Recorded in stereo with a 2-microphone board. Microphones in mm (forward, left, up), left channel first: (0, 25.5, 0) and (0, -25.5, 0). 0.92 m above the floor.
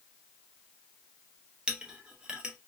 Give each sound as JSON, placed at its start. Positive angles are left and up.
{"t": 1.7, "sound": "a clink", "side_deg": -20, "distance_m": 0.9}